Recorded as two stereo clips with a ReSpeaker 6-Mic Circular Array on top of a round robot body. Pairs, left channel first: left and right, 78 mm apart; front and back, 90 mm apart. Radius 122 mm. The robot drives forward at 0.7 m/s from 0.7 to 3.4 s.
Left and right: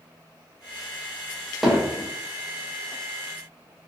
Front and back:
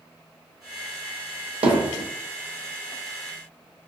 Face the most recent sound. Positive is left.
turn(degrees=180)